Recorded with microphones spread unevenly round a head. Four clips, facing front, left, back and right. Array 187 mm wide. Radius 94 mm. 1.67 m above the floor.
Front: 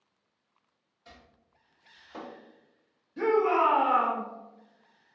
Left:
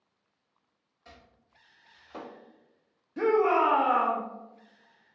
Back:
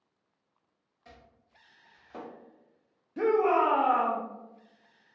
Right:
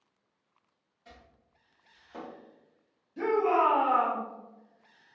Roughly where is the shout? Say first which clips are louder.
Left 2 dB, even; behind left.